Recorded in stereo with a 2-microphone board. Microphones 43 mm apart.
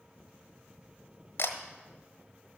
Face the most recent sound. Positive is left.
turn(degrees=65)  # may be behind; listen again after turning